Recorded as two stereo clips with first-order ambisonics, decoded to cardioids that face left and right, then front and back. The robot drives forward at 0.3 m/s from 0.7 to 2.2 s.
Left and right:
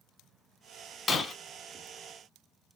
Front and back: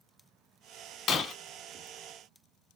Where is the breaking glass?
25° left, 0.6 m; by 1.3 s 35° left, 0.6 m.